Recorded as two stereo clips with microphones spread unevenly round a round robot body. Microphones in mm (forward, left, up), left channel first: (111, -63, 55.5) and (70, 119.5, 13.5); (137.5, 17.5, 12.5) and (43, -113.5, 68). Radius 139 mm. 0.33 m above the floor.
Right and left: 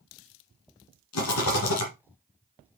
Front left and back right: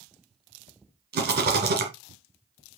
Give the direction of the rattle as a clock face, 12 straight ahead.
3 o'clock.